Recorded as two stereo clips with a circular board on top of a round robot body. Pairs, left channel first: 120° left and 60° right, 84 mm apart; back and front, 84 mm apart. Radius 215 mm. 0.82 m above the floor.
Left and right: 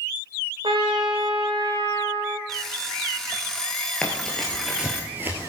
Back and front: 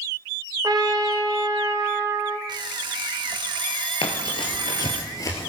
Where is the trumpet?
45° right, 0.8 m.